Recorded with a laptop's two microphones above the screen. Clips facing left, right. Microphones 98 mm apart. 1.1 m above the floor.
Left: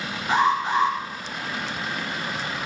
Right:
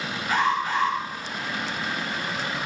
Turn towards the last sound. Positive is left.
turn(degrees=25)  # may be behind; listen again after turning